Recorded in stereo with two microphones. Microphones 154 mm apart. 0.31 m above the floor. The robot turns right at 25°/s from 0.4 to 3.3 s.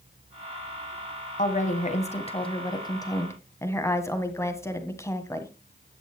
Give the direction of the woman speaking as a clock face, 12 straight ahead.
8 o'clock.